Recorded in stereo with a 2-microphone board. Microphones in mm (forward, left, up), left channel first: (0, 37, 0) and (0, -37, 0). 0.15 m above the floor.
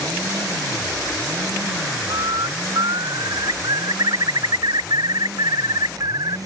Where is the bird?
65° right (ahead or behind).